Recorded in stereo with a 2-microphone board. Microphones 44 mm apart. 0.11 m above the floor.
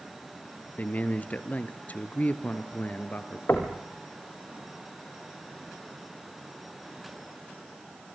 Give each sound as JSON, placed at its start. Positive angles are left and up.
{"t": 0.8, "sound": "a man speaking", "side_deg": 35, "distance_m": 1.5}
{"t": 3.5, "sound": "knocking", "side_deg": 50, "distance_m": 3.0}